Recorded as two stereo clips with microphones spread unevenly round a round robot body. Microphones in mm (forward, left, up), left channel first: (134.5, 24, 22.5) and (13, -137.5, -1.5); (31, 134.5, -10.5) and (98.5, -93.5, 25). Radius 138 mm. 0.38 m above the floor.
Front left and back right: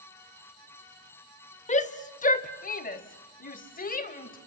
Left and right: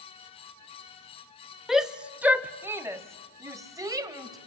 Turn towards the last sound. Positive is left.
turn(degrees=5)